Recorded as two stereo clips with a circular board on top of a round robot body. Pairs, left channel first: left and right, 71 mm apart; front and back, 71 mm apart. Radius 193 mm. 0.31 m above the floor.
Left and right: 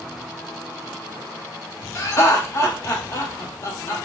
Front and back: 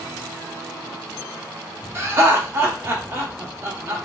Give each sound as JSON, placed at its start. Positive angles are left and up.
{"t": 1.9, "sound": "laughter", "azimuth_deg": 130, "distance_m": 1.7}